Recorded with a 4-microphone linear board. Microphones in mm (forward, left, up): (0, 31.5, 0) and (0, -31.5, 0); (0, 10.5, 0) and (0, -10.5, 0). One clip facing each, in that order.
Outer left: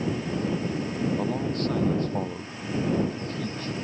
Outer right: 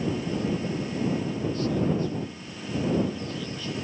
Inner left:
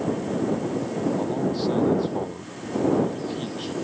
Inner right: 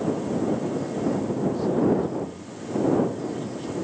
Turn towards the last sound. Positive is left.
turn(degrees=45)  # may be behind; listen again after turning